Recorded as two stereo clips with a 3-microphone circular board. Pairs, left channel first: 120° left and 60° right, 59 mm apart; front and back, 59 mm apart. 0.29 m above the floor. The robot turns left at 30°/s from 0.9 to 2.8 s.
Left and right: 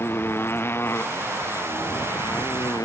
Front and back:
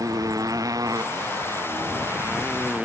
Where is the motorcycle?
170° left; by 2.9 s 115° left.